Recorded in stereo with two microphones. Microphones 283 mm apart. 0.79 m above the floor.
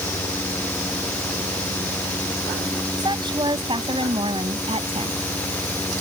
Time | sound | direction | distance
3.0 | a woman speaking | 15° right (ahead or behind) | ?